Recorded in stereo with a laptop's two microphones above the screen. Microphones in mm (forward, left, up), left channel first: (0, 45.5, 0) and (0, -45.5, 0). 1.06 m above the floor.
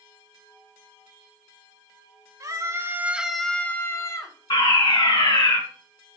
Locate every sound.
2.4 s a scream: 40° right (ahead or behind), 1.0 m; by 4.4 s 40° left (ahead or behind), 1.1 m
4.5 s a fire alarm: 60° left (ahead or behind), 2.5 m